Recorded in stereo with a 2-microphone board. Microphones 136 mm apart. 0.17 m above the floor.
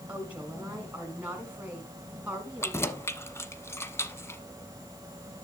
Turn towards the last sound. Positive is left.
turn(degrees=20)  # may be behind; listen again after turning